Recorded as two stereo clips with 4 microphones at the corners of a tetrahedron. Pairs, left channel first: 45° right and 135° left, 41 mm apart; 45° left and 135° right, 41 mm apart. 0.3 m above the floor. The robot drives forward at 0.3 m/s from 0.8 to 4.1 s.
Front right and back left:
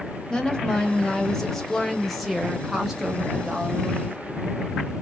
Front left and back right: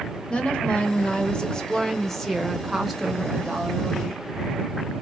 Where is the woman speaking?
10° left, 1.0 m; by 4.3 s 170° left, 1.0 m.